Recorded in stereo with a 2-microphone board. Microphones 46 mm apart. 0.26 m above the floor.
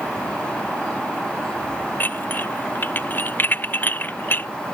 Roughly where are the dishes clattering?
Left.